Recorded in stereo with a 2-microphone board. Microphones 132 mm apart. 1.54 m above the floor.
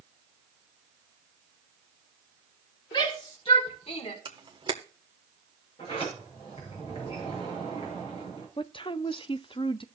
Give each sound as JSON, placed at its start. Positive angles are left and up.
{"t": 2.9, "sound": "a shout", "side_deg": 40, "distance_m": 4.0}
{"t": 4.2, "sound": "a camera shutter", "side_deg": -40, "distance_m": 1.3}
{"t": 5.8, "sound": "a sliding door", "side_deg": 45, "distance_m": 6.5}
{"t": 8.6, "sound": "a woman speaking", "side_deg": 40, "distance_m": 0.6}